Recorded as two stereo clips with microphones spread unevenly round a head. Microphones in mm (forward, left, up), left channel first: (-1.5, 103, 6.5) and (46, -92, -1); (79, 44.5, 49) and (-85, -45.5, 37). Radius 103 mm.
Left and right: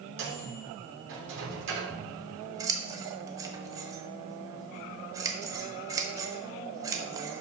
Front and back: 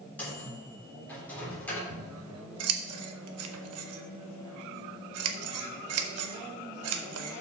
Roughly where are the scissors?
Behind right.